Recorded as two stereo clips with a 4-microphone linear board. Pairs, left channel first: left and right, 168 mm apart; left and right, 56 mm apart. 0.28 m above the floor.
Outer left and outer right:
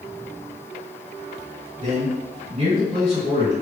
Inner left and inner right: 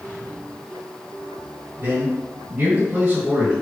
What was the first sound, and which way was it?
A man speaking, 35° right (ahead or behind).